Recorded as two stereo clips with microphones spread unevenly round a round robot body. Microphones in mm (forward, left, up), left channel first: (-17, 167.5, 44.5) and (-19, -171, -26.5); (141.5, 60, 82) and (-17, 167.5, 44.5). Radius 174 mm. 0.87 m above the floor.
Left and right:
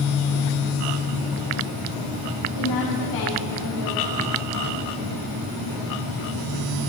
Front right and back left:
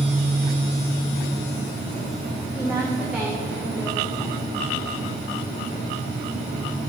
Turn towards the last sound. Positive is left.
turn(degrees=45)